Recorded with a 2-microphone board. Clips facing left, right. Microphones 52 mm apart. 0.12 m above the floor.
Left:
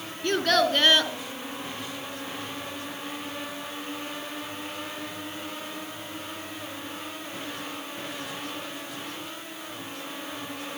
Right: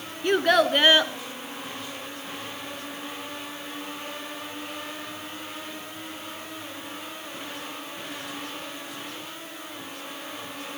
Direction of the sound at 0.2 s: 15° right (ahead or behind).